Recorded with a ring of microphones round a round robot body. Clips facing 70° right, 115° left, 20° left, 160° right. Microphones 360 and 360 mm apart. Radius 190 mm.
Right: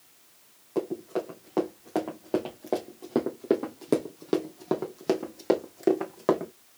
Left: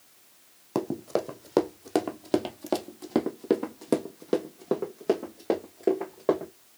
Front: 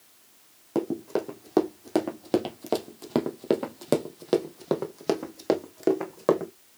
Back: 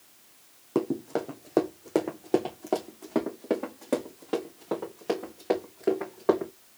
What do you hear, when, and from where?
0.8 s running footsteps: 100° left, 1.7 m; by 6.5 s 15° right, 2 m